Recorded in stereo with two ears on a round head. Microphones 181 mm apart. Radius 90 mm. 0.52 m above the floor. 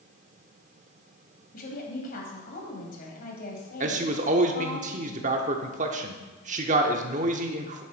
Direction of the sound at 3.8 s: 40° right (ahead or behind).